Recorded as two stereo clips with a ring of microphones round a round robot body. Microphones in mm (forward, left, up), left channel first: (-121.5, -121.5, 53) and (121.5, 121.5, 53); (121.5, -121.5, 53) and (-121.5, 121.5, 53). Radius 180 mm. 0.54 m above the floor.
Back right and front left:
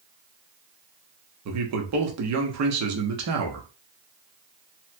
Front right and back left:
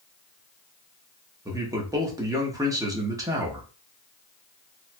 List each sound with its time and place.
1.4 s a man speaking: 60° left, 0.9 m